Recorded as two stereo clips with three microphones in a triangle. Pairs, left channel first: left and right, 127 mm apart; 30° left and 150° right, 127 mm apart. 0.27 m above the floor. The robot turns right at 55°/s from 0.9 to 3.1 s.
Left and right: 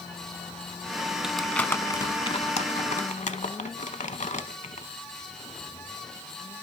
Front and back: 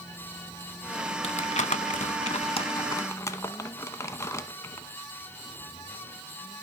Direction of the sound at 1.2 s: 5° right.